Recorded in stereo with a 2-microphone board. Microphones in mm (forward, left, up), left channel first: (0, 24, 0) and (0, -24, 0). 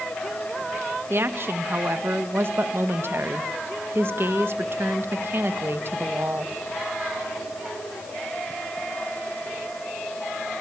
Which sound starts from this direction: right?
A woman speaking, at 1.1 s.